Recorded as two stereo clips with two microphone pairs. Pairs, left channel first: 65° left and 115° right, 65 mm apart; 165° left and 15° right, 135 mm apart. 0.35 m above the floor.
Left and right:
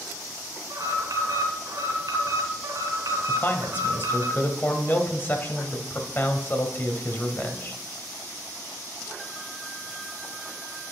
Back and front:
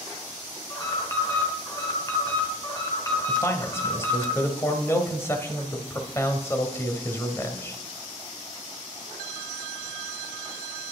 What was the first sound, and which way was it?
An alarm, 130° right.